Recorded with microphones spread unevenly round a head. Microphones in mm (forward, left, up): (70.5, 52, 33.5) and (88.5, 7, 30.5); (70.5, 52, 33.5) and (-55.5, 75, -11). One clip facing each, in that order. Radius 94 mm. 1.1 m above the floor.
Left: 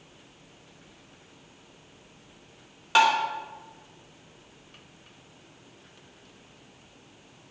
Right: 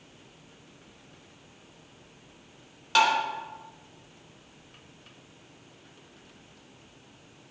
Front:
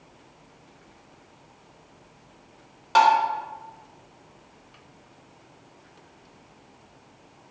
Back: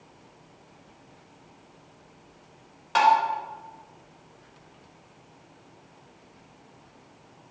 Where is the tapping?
35° left, 3.5 m.